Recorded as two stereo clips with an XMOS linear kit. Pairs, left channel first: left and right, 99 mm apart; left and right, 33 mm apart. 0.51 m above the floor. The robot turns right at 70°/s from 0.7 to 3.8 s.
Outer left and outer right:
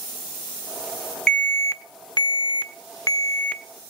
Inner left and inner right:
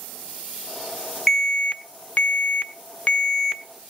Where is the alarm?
10° left, 0.9 m; by 3.6 s 170° left, 0.9 m.